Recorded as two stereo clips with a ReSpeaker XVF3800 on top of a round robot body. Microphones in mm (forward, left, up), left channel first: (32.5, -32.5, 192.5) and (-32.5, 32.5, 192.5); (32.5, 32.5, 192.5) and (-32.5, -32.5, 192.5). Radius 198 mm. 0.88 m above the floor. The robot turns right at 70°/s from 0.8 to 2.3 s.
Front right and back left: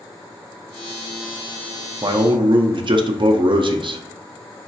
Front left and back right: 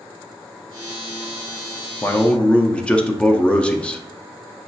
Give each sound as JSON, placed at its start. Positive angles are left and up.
{"t": 2.0, "sound": "a man speaking", "azimuth_deg": 100, "distance_m": 0.5}